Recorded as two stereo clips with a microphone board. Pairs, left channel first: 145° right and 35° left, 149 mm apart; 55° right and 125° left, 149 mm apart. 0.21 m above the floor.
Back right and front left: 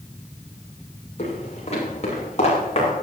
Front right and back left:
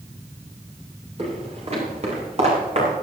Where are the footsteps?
170° left, 8.5 m.